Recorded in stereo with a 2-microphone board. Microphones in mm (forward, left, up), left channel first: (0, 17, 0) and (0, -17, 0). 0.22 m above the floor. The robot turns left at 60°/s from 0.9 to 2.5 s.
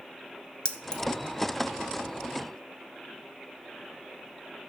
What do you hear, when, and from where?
0.7 s keys jangling: 30° left (ahead or behind), 0.7 m; by 1.0 s 25° left (ahead or behind), 0.7 m